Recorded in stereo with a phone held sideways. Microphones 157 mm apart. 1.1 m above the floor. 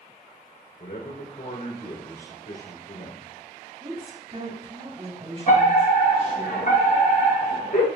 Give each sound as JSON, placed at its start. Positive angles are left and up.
{"t": 0.8, "sound": "a man speaking", "side_deg": 75, "distance_m": 3.0}
{"t": 3.8, "sound": "a woman speaking", "side_deg": -35, "distance_m": 3.0}
{"t": 5.5, "sound": "a fire alarm", "side_deg": 65, "distance_m": 2.5}